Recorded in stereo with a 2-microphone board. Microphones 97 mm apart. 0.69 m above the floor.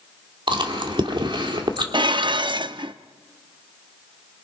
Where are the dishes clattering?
50° right (ahead or behind), 0.6 m.